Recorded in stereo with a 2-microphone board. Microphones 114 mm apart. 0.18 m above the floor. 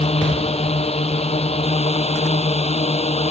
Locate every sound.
0.0 s a drone: 65° left (ahead or behind)